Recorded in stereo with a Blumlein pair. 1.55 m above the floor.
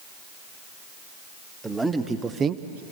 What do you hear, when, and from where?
1.6 s a man speaking: 10° right, 2 m; by 2.8 s 55° right, 0.6 m